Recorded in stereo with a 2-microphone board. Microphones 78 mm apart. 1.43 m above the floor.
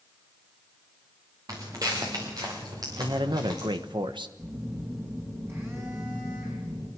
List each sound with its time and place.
1.5 s footsteps: 50° right (ahead or behind), 5 m; by 3.7 s 60° right (ahead or behind), 6.5 m
3.0 s a man speaking: 85° right, 1.1 m
4.4 s a phone buzzing: 35° right (ahead or behind), 5.5 m